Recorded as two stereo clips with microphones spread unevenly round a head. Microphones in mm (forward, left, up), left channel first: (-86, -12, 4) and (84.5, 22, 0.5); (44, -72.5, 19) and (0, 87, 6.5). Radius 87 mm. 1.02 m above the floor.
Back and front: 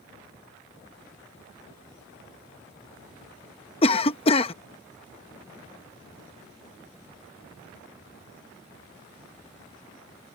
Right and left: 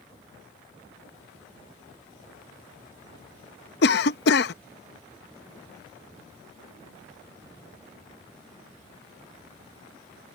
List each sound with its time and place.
3.8 s a cough: 110° right